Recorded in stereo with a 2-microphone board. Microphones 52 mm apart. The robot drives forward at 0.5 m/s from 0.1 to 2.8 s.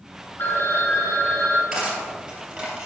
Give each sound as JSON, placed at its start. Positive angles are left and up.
{"t": 0.4, "sound": "a phone ringing", "side_deg": 40, "distance_m": 0.9}
{"t": 1.7, "sound": "cutlery clinking", "side_deg": -10, "distance_m": 2.0}